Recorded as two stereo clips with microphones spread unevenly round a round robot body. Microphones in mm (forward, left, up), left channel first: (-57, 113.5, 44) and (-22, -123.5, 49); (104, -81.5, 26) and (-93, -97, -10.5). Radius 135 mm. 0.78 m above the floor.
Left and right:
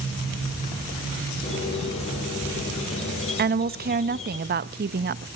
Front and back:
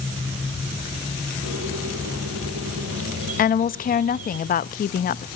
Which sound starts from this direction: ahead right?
A woman speaking, at 3.4 s.